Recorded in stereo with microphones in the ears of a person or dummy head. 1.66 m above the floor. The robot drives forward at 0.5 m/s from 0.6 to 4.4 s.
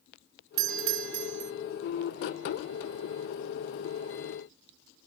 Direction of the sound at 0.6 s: 65° right (ahead or behind).